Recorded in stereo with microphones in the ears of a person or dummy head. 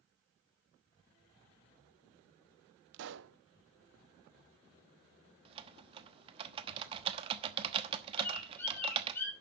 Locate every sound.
2.9 s a pop: 50° right (ahead or behind), 0.6 m
5.5 s typing on a keyboard: 35° right (ahead or behind), 1.1 m
8.2 s a bird: 10° left (ahead or behind), 3.5 m